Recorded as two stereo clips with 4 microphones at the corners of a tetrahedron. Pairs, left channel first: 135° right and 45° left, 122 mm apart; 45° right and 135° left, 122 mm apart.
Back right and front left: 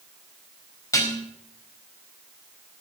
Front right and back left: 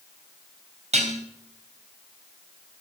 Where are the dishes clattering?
160° left, 3.5 m.